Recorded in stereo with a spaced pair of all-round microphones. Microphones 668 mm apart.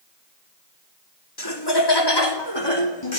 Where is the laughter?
35° left (ahead or behind), 3 m; by 3.2 s 40° left (ahead or behind), 4 m.